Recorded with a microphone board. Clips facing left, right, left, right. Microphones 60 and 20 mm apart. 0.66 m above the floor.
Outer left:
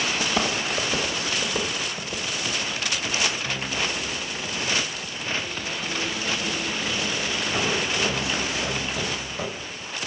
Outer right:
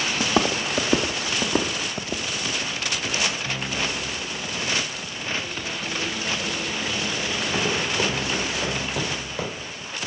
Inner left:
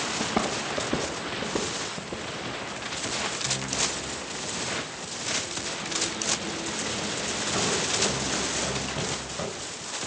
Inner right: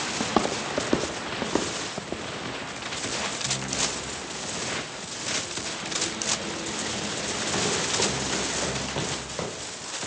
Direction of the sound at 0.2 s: 35° right (ahead or behind).